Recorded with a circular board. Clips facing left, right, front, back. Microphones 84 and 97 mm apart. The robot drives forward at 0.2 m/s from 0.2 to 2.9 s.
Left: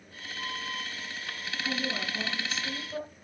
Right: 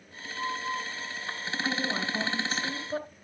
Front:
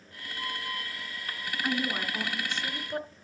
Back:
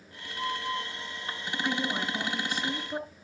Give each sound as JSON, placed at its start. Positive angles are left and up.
{"t": 1.6, "sound": "a woman speaking", "azimuth_deg": -95, "distance_m": 1.8}